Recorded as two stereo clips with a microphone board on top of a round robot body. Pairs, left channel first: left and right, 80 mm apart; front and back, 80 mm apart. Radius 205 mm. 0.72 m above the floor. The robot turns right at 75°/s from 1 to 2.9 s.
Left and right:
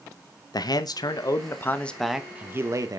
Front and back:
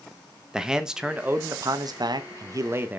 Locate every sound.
0.5 s a man speaking: 100° left, 1.1 m; by 3.0 s 115° right, 1.1 m